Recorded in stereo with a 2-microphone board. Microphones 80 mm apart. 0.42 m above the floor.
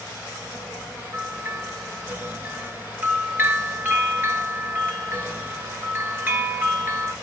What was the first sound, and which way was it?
A bell, 30° right (ahead or behind).